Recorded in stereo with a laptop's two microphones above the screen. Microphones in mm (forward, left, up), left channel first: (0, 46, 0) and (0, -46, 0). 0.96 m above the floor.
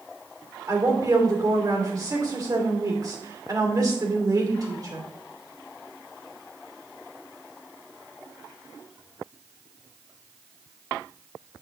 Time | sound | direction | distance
0.7 | a woman speaking | 40° right (ahead or behind) | 2.5 m